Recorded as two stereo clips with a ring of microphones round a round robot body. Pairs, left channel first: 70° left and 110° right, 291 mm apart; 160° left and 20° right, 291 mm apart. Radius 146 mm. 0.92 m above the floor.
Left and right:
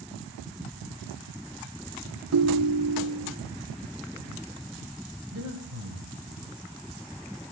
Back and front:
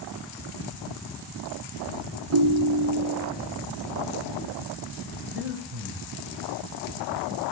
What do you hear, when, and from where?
2.3 s a ringtone: 65° right, 0.5 m
5.3 s breathing: 70° right, 1.1 m